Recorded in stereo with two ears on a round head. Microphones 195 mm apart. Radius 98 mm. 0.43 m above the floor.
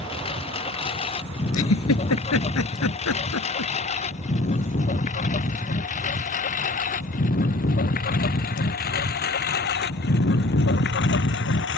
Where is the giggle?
85° left.